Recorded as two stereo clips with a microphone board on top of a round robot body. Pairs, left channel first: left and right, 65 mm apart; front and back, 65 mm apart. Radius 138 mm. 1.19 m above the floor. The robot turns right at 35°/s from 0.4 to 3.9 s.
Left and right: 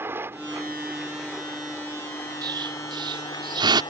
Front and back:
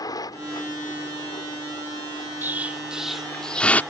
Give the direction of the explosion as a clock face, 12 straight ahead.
4 o'clock.